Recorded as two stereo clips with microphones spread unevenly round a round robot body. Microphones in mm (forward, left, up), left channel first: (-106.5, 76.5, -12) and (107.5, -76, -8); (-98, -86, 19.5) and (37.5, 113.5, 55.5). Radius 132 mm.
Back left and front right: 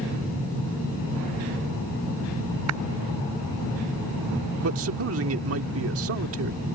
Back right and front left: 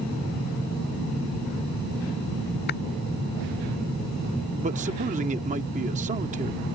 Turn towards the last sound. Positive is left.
turn(degrees=-5)